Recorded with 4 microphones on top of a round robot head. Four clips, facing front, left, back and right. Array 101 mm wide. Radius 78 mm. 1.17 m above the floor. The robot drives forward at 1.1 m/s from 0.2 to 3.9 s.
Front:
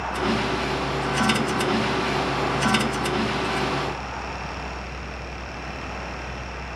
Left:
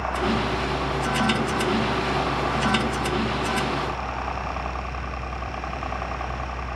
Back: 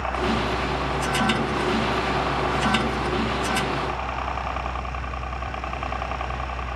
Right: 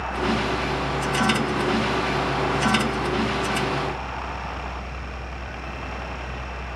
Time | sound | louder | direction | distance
0.0 | a helicopter | even, even | 140° left | ?